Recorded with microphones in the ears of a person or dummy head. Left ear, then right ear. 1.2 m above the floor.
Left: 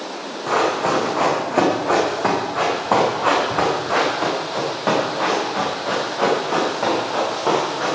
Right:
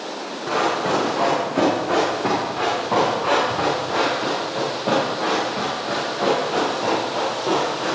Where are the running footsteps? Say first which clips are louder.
Left 2 dB; 30° left (ahead or behind), 5 m; by 8.0 s 65° left (ahead or behind), 9 m.